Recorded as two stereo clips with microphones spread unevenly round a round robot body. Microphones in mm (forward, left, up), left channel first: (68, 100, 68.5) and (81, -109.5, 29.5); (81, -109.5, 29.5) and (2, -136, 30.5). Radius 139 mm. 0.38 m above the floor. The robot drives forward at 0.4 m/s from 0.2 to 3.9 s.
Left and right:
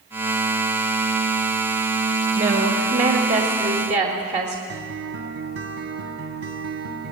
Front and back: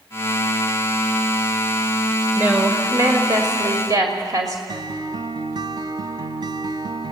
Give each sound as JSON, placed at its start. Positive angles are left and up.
{"t": 2.4, "sound": "a woman speaking", "azimuth_deg": -105, "distance_m": 1.7}
{"t": 4.7, "sound": "a guitar", "azimuth_deg": -130, "distance_m": 1.2}